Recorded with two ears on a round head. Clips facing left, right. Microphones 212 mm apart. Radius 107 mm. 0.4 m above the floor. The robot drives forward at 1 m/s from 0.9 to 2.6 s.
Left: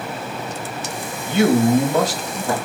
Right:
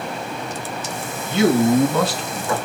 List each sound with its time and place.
1.3 s a man speaking: 50° left (ahead or behind), 1.8 m; by 2.5 s 35° left (ahead or behind), 2.5 m